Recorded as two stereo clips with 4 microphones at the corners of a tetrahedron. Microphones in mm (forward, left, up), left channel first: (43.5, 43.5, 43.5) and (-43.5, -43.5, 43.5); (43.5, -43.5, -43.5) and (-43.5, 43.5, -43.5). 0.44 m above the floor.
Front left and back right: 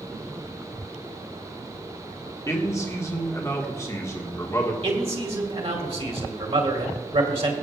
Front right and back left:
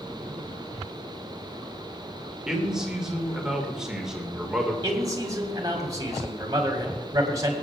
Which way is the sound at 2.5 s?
60° left.